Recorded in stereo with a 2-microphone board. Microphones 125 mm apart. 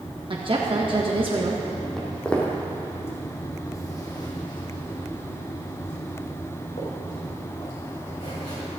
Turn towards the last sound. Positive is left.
turn(degrees=60)  # may be behind; listen again after turning